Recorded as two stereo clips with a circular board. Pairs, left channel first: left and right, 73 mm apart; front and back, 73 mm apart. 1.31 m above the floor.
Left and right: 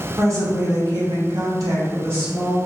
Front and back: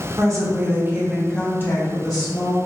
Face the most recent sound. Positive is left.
turn(degrees=-20)